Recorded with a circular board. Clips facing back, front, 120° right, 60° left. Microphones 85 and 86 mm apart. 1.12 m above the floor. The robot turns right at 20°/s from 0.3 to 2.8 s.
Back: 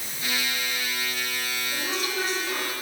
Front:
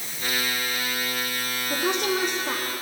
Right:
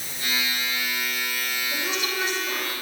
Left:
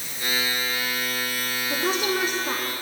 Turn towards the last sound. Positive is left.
turn(degrees=30)